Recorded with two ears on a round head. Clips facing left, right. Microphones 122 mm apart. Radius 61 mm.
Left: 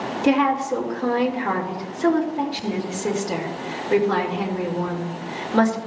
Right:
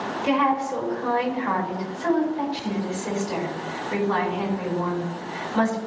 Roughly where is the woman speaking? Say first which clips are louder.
Left 3 dB; left.